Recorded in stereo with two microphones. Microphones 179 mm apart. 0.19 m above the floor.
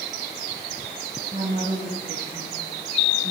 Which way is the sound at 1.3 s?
35° right (ahead or behind).